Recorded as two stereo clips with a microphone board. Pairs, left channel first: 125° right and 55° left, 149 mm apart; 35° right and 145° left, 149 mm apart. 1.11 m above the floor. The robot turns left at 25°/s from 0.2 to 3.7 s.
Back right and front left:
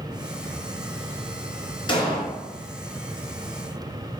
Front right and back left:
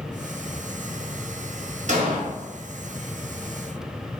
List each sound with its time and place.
1.9 s an explosion: straight behind, 0.8 m; by 2.2 s 170° left, 0.8 m